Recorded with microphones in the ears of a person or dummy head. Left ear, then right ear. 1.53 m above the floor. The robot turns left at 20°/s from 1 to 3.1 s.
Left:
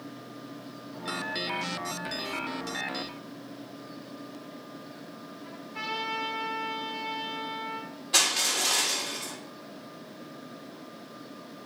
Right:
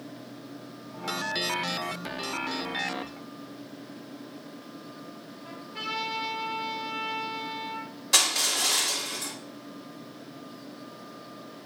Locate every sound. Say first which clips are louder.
5.4 s a trumpet: right 1 dB; 15° right (ahead or behind), 4.5 m
8.1 s crushing: right 1 dB; 60° right (ahead or behind), 4.5 m